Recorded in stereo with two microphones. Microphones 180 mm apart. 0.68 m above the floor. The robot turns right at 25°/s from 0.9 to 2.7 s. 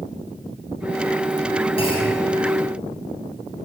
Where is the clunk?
35° left (ahead or behind), 3.5 m; by 2.2 s 25° left (ahead or behind), 3.5 m.